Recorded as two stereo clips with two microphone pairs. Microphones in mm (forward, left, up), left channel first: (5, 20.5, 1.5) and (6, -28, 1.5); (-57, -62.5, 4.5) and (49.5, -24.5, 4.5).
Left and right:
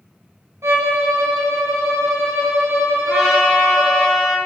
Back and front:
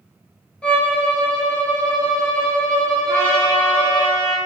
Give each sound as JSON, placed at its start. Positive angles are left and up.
{"t": 0.6, "sound": "a violin", "azimuth_deg": -80, "distance_m": 0.9}
{"t": 3.1, "sound": "a trumpet", "azimuth_deg": -175, "distance_m": 1.5}